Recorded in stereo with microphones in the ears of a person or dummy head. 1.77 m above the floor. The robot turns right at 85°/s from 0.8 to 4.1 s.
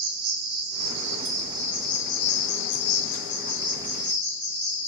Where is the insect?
85° right, 0.8 m; by 4.9 s 165° right, 0.8 m.